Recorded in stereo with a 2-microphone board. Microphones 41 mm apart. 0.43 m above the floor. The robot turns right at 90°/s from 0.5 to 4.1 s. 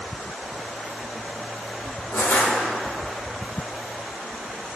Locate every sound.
2.1 s crushing: 110° left, 4 m; by 2.5 s 145° left, 4 m